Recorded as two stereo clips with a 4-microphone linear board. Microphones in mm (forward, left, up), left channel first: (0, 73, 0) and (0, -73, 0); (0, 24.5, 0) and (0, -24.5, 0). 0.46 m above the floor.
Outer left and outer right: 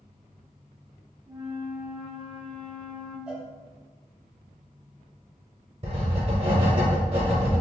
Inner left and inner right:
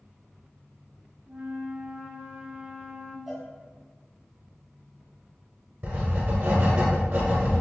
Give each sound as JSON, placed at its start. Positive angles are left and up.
{"t": 1.3, "sound": "a flute", "side_deg": -35, "distance_m": 0.6}
{"t": 3.3, "sound": "a cowbell", "side_deg": -5, "distance_m": 0.9}
{"t": 5.8, "sound": "writing", "side_deg": -45, "distance_m": 1.0}